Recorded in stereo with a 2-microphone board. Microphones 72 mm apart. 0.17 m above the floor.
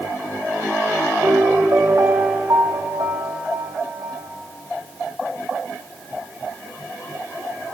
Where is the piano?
50° right (ahead or behind), 2.5 m.